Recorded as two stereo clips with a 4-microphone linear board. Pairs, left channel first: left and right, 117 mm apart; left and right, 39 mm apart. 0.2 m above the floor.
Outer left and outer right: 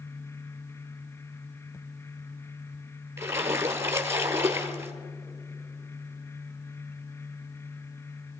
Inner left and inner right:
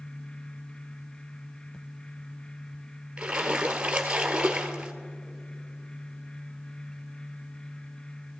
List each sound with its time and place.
3.2 s a splash: 20° right (ahead or behind), 1.2 m